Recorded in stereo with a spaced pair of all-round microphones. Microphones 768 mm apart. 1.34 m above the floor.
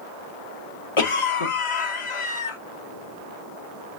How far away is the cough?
About 0.8 m.